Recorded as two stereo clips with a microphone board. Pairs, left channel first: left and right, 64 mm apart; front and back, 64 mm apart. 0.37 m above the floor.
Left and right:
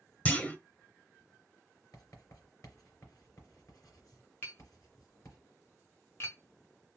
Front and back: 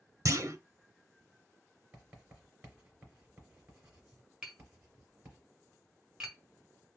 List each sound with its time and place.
0.2 s a clunk: 155° left, 0.6 m
1.9 s writing: 120° left, 2.5 m
4.4 s tapping: 110° left, 1.5 m